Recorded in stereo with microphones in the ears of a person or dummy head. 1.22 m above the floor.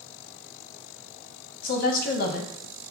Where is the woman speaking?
55° left (ahead or behind), 0.7 m.